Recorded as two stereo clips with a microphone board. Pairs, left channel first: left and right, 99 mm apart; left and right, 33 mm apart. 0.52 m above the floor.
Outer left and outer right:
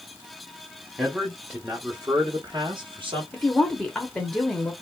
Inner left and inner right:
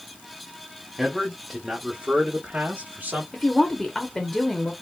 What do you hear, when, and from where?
1.0 s a man speaking: centre (ahead or behind), 1.0 m; by 3.2 s 60° right (ahead or behind), 1.2 m
3.3 s a woman speaking: 5° left (ahead or behind), 0.9 m